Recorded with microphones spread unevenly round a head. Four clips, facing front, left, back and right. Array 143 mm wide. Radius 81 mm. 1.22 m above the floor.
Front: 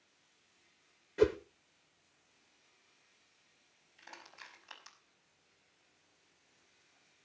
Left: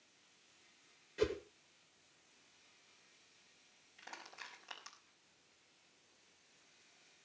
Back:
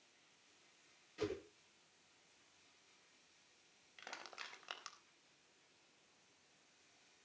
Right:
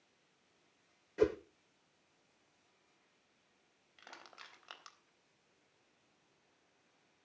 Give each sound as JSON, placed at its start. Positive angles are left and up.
{"t": 1.2, "sound": "a whoosh", "azimuth_deg": -40, "distance_m": 1.1}
{"t": 4.0, "sound": "crushing", "azimuth_deg": -175, "distance_m": 4.0}